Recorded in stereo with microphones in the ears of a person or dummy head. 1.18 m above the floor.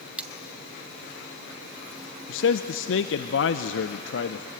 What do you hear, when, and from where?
0.2 s cutlery clinking: 5° right (ahead or behind), 0.6 m
2.3 s a man speaking: 60° left (ahead or behind), 0.6 m